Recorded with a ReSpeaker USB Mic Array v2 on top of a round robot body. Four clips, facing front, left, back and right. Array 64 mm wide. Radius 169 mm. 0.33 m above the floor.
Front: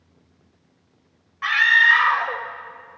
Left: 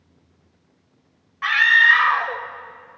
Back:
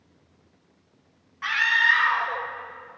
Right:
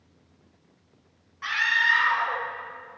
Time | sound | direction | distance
1.4 | a scream | 80° left | 1.6 m